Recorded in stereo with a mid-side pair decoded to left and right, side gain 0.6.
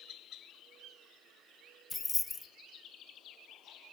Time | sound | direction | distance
1.9 | keys jangling | 25° left | 0.5 m